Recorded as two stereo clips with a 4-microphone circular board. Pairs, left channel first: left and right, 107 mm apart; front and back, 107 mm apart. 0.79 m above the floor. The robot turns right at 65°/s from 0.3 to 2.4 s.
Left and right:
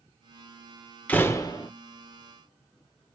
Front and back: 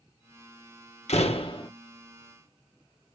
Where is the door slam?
10° left, 1.6 m; by 1.7 s 50° left, 1.6 m.